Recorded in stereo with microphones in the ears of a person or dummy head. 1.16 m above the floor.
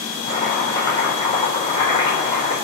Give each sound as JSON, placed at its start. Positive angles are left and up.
{"t": 0.3, "sound": "chopping", "side_deg": 25, "distance_m": 5.0}